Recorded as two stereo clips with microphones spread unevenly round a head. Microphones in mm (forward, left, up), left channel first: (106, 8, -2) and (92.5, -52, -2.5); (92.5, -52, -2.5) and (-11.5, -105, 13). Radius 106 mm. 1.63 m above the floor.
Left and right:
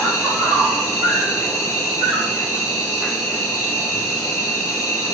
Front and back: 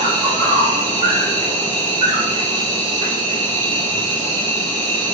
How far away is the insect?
About 1.0 m.